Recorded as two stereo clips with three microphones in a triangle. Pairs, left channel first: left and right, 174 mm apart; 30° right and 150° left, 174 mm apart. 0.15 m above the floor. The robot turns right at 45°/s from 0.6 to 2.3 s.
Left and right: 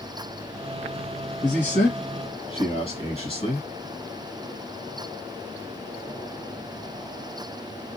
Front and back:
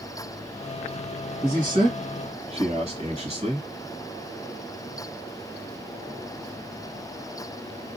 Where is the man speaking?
80° left, 2.0 m; by 3.7 s 120° left, 2.0 m.